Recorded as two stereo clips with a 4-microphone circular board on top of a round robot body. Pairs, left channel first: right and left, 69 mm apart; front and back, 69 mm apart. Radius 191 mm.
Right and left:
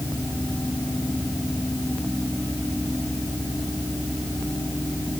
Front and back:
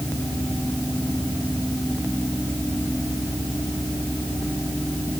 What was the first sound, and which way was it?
Only background noise.